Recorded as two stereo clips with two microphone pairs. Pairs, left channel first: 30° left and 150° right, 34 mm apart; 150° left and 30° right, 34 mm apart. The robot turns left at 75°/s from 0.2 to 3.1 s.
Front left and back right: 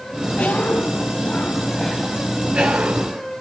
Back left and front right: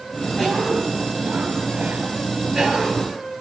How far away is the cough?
About 2 m.